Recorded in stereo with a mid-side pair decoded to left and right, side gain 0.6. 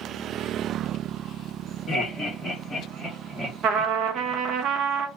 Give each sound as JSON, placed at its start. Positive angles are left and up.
{"t": 1.9, "sound": "laughter", "azimuth_deg": 25, "distance_m": 1.6}
{"t": 3.6, "sound": "a trumpet", "azimuth_deg": -55, "distance_m": 0.8}